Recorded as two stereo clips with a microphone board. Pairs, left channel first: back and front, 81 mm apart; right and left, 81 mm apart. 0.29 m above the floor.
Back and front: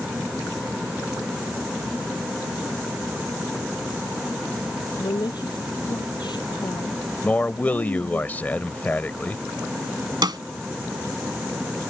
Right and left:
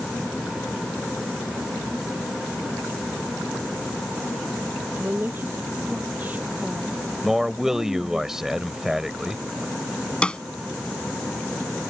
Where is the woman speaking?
155° left; by 8.2 s 165° left.